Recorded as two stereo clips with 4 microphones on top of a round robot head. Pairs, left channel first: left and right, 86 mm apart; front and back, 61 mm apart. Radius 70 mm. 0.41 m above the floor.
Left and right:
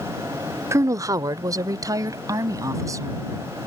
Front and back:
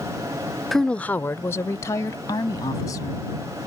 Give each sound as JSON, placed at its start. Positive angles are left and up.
{"t": 0.7, "sound": "a woman speaking", "azimuth_deg": -80}